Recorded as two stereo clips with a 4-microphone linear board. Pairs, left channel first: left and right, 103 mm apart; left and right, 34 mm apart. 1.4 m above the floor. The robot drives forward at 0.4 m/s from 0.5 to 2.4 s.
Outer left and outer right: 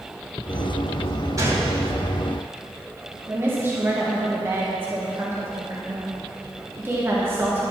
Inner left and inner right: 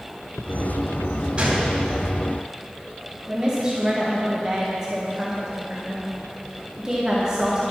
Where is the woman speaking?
25° right (ahead or behind), 1.6 m.